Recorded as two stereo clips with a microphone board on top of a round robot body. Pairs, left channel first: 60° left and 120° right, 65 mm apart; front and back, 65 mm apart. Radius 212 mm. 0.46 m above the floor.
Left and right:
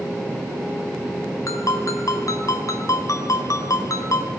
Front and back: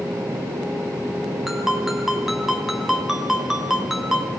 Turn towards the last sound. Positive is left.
turn(degrees=95)